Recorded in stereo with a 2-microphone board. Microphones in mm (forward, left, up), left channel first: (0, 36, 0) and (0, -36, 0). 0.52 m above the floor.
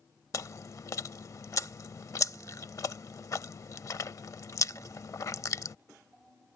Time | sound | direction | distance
0.3 | chewing | 50° left (ahead or behind) | ?